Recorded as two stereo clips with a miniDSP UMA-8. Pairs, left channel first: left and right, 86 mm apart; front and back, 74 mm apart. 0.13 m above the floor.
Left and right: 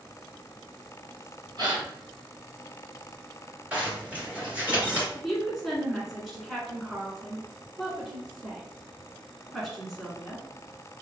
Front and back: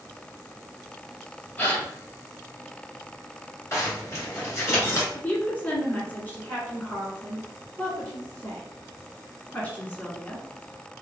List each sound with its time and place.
1.6 s a gasp: 60° right, 1.9 m
3.7 s a zipper: 25° right, 1.9 m
5.1 s a woman speaking: straight ahead, 1.2 m